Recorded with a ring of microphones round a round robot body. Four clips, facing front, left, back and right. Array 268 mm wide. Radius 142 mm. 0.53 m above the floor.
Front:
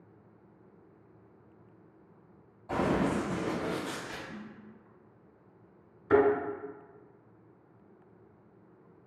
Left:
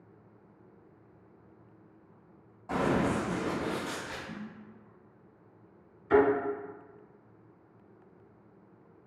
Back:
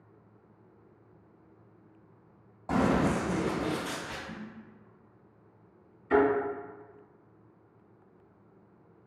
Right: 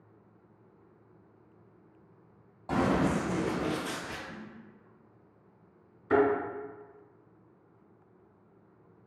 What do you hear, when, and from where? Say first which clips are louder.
2.7 s running footsteps: right 1 dB, back 2 dB; 160° right, 1.0 m; by 4.2 s 95° right, 0.7 m
4.3 s a snare drum: left 2 dB, back 2 dB; 125° left, 0.7 m
6.1 s a thud: left 1 dB, even; 25° right, 1.6 m